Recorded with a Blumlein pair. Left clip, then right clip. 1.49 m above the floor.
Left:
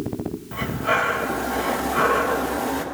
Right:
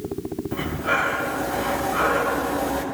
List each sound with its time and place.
0.5 s breathing: 5° left, 0.9 m